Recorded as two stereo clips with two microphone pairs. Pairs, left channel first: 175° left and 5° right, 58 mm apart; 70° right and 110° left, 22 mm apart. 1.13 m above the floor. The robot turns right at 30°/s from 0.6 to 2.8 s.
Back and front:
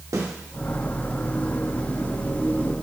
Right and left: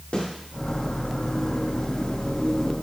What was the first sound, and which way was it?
A snare drum, 30° right.